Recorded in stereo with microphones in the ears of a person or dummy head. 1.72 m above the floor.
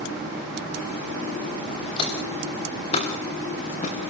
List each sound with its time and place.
2.0 s footsteps: 30° left (ahead or behind), 6.5 m; by 4.1 s 40° left (ahead or behind), 6 m